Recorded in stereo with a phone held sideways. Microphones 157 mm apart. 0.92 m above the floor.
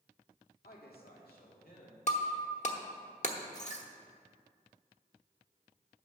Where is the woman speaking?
75° left (ahead or behind), 2.0 m; by 2.0 s 65° left (ahead or behind), 2.5 m.